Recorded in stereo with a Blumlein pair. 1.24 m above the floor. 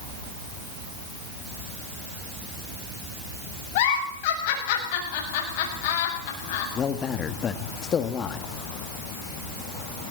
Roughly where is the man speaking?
Ahead left.